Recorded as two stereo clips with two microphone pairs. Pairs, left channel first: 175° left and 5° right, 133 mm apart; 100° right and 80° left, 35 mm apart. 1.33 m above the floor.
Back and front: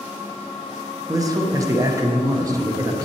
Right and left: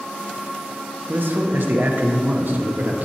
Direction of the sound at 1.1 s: 60° left.